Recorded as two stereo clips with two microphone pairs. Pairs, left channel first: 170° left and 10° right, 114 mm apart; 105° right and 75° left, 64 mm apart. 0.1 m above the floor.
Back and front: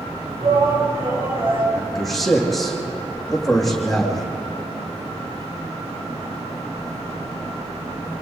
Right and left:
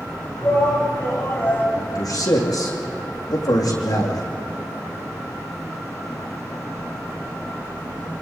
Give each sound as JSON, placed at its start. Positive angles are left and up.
{"t": 0.4, "sound": "a shout", "azimuth_deg": -50, "distance_m": 7.5}
{"t": 1.8, "sound": "a man speaking", "azimuth_deg": -100, "distance_m": 5.5}